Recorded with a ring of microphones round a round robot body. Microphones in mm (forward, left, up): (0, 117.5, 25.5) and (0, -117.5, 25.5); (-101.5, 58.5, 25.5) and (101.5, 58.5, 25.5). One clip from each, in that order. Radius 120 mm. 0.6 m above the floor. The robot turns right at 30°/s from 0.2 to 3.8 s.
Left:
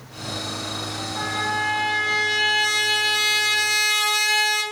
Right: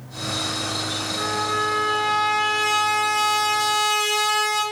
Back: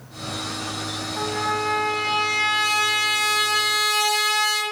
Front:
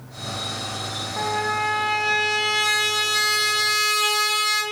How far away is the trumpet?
About 1.2 m.